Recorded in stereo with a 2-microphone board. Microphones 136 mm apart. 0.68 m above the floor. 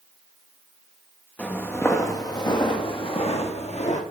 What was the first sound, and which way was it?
Footsteps, 10° left (ahead or behind).